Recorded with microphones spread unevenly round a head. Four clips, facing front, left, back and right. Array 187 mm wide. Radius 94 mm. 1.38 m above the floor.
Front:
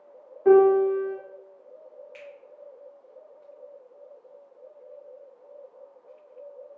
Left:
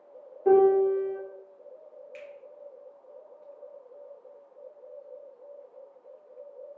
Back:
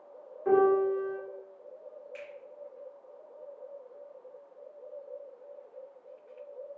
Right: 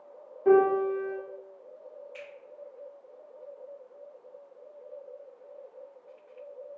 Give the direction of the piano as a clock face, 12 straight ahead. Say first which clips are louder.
Left 2 dB, front 7 dB; 12 o'clock.